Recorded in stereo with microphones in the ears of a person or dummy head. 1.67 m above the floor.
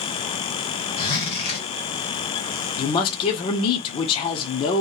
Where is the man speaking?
35° left (ahead or behind), 0.6 m.